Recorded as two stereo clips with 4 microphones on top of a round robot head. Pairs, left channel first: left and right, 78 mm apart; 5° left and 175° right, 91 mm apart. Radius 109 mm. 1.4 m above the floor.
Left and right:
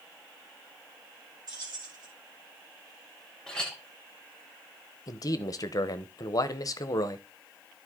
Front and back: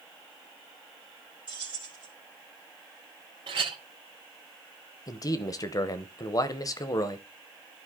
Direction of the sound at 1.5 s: 135° right.